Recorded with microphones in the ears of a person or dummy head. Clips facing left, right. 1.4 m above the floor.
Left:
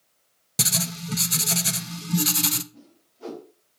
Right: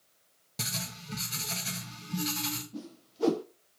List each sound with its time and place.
0.6 s writing: 60° left (ahead or behind), 0.7 m
2.7 s a whoosh: 65° right (ahead or behind), 0.6 m